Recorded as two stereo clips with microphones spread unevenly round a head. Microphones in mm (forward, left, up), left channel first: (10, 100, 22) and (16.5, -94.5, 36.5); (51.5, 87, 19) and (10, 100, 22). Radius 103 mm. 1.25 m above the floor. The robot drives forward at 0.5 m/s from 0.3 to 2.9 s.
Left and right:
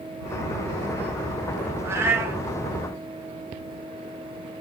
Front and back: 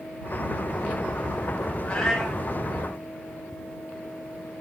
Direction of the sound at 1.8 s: 40° right.